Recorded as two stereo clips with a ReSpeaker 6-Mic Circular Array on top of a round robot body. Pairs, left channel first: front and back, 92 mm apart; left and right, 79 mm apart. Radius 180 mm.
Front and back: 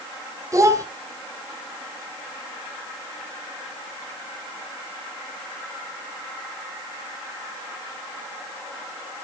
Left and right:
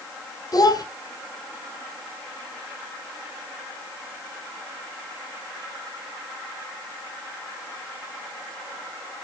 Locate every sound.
0.5 s a child speaking: 125° left, 1.8 m